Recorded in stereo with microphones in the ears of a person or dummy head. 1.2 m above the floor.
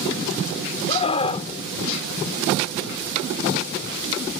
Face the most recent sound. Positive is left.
turn(degrees=30)  # may be behind; listen again after turning